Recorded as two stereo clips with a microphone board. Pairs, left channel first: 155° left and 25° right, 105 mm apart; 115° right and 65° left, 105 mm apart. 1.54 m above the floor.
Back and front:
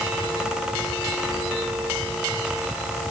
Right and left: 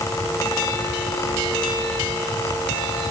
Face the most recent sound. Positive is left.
No sound to turn to.